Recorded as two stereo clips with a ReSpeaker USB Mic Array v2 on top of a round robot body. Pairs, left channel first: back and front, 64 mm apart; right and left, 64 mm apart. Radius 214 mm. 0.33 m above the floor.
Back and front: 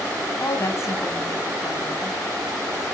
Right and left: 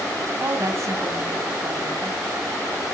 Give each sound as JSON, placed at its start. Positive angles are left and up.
{"t": 0.4, "sound": "a woman speaking", "azimuth_deg": 135, "distance_m": 5.0}